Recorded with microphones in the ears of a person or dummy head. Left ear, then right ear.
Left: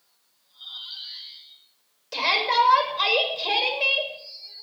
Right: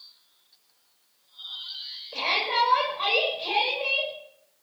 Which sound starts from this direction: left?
A shout, at 2.1 s.